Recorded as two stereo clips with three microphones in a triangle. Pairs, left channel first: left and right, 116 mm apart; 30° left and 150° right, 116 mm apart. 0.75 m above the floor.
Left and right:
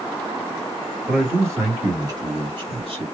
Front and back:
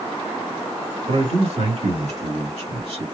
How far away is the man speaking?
About 2 m.